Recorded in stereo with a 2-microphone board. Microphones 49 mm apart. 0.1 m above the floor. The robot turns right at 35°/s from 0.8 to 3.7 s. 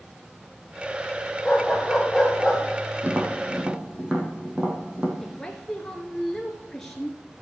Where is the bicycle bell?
I don't hear a bicycle bell.